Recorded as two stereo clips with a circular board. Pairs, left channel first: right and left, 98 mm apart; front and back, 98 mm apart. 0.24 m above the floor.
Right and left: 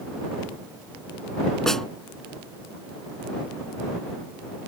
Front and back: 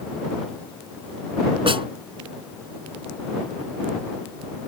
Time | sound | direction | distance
1.7 | a snare drum | 175° right | ?